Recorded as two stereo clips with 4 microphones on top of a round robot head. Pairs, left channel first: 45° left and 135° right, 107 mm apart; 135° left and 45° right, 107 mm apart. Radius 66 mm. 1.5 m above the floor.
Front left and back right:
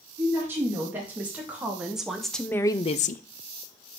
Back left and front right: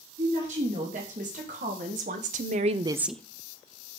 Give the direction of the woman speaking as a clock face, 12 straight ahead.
2 o'clock.